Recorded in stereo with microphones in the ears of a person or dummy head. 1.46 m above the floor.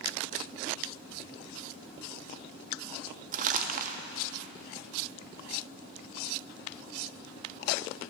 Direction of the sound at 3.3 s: 40° right (ahead or behind).